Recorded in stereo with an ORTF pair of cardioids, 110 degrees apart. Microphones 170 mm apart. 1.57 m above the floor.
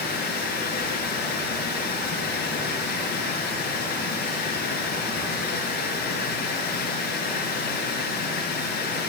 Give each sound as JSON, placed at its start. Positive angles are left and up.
{"t": 0.0, "sound": "running water", "azimuth_deg": 60, "distance_m": 10.0}